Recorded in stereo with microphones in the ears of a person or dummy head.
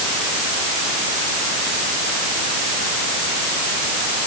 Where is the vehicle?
No vehicle in this recording.